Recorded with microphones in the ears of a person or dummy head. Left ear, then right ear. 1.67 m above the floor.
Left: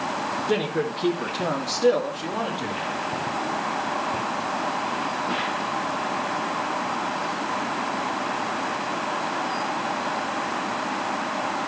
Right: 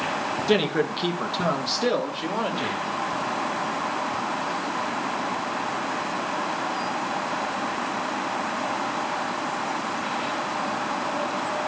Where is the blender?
I don't hear a blender.